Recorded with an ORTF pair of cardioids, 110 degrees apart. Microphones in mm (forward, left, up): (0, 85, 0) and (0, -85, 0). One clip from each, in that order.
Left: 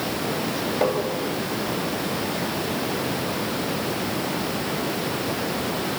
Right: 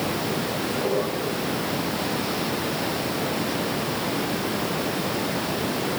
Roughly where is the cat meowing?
No cat meowing in this recording.